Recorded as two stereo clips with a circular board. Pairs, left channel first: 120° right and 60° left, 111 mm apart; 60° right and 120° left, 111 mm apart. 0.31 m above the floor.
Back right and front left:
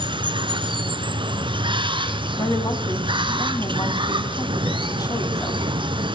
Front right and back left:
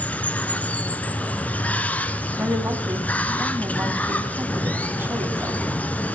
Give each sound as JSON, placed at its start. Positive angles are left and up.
{"t": 0.0, "sound": "running water", "azimuth_deg": 15, "distance_m": 1.3}
{"t": 2.4, "sound": "a woman speaking", "azimuth_deg": -170, "distance_m": 2.5}